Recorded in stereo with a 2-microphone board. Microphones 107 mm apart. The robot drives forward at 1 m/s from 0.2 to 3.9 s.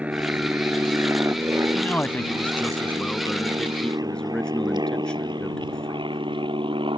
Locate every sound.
0.0 s an aircraft: 10° right (ahead or behind); by 7.0 s 50° right (ahead or behind)
1.8 s a man speaking: 15° left (ahead or behind); by 6.2 s 10° left (ahead or behind)